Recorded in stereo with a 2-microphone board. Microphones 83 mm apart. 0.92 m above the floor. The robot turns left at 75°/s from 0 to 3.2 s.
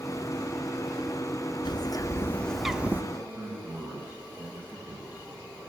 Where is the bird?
75° left, 0.7 m; by 3.0 s 30° right, 0.7 m.